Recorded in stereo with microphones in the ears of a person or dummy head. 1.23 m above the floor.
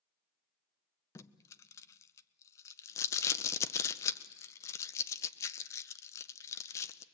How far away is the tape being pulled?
About 0.7 m.